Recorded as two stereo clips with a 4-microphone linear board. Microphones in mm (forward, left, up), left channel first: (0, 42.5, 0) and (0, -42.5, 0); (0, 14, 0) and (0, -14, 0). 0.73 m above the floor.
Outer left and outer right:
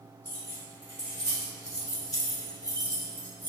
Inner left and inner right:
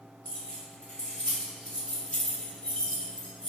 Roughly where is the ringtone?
I don't hear a ringtone.